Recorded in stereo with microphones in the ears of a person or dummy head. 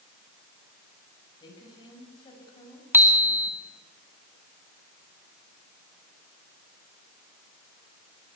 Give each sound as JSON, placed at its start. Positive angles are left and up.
{"t": 1.4, "sound": "a woman speaking", "side_deg": 25, "distance_m": 7.5}
{"t": 2.9, "sound": "a bicycle bell", "side_deg": -10, "distance_m": 2.0}